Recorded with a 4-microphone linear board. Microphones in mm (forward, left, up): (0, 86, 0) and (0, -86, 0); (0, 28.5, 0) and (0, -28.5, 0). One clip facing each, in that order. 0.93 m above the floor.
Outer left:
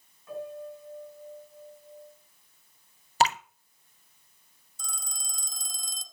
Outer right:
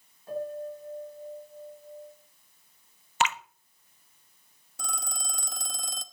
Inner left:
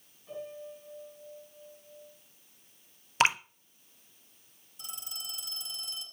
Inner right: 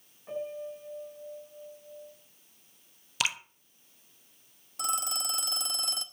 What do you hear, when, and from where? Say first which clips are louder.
0.3 s a piano: outer right 4 dB, inner right 5 dB; 35° right (ahead or behind), 4.5 m
3.2 s dripping: outer left 3 dB, inner left 7 dB; 35° left (ahead or behind), 0.6 m
4.8 s a phone ringing: outer right 7 dB, inner right 14 dB; 70° right (ahead or behind), 0.9 m